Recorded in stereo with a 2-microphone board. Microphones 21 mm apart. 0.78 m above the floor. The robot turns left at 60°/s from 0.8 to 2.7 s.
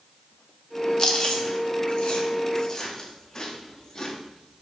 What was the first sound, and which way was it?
Chewing, 35° left (ahead or behind).